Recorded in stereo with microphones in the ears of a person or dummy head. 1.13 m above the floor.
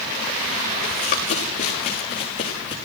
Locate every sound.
0.8 s running footsteps: 40° left (ahead or behind), 5.5 m; by 2.8 s 35° left (ahead or behind), 6.5 m